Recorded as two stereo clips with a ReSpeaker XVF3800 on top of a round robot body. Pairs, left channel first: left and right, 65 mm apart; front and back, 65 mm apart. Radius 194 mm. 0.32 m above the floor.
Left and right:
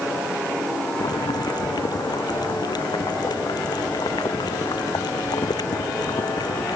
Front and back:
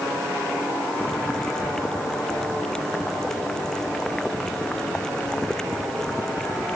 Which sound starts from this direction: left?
Boiling, at 1.0 s.